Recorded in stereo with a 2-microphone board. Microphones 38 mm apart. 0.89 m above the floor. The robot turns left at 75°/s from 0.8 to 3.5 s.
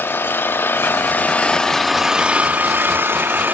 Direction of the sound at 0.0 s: 80° left.